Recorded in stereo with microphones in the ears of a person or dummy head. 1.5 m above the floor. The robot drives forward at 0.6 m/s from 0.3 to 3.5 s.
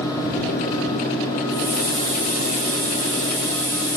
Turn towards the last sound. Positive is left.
turn(degrees=10)  # may be behind; listen again after turning